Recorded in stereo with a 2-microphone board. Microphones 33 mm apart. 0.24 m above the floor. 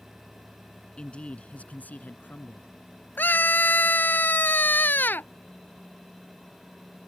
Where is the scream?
75° left (ahead or behind).